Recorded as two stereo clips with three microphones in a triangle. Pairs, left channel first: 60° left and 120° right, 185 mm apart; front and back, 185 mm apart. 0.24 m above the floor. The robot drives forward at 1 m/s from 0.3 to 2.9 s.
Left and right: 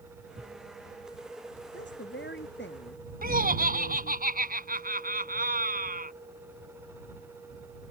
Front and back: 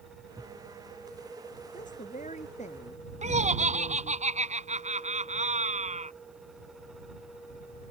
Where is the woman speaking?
45° left; by 4.2 s 50° left.